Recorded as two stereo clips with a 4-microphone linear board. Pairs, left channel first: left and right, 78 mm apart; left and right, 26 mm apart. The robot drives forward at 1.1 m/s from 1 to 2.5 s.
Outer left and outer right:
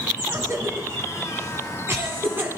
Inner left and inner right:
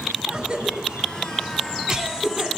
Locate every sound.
0.3 s a cough: 35° right (ahead or behind), 1.3 m; by 2.5 s 25° right (ahead or behind), 1.7 m